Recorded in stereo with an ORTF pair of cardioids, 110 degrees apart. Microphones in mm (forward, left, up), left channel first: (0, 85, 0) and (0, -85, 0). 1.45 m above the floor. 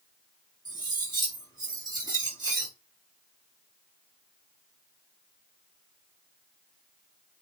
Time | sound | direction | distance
0.7 | cutlery clinking | 25° right | 1.6 m